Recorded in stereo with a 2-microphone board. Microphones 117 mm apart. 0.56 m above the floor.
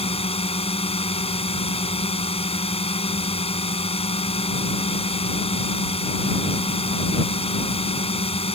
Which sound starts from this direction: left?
A drone, at 0.0 s.